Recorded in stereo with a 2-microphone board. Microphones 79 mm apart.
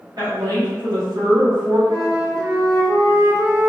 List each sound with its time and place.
0.2 s a woman speaking: 60° right (ahead or behind), 2.0 m
1.9 s a flute: 50° right (ahead or behind), 1.5 m